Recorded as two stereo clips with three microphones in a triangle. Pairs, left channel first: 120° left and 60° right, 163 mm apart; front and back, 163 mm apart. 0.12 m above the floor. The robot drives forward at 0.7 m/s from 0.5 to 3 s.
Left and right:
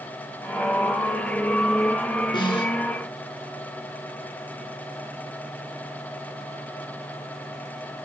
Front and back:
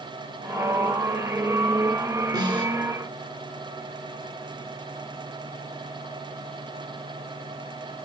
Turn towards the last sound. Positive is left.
turn(degrees=160)